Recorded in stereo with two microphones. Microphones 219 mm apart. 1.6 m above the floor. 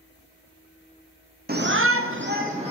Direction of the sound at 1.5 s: 45° right (ahead or behind).